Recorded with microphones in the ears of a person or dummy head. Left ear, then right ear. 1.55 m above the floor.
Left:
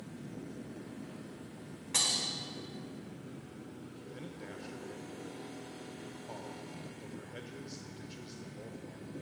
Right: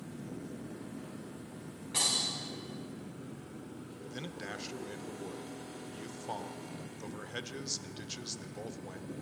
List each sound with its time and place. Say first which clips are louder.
1.9 s breaking glass: even; 35° left (ahead or behind), 3 m
4.1 s a man speaking: right 5 dB; 35° right (ahead or behind), 0.6 m